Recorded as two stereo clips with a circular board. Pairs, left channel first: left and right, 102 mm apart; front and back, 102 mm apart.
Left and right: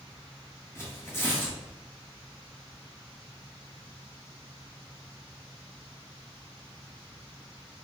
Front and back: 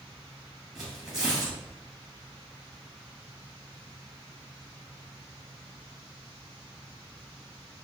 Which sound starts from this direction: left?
Tearing paper, at 0.8 s.